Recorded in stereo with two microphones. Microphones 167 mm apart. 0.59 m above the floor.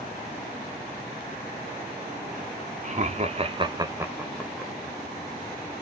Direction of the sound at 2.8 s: 45° right (ahead or behind).